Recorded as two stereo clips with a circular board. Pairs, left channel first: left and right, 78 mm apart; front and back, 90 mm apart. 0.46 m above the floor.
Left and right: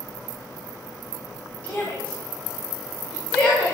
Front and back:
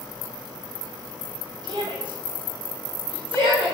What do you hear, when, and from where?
1.6 s a shout: 155° left, 3 m; by 3.7 s 165° left, 5.5 m